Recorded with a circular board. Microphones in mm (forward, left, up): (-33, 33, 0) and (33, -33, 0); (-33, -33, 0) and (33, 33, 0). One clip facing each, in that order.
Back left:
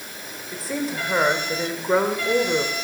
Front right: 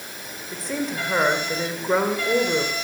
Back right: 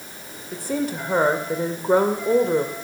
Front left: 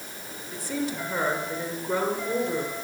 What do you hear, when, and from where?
0.5 s a woman speaking: 140° right, 1.7 m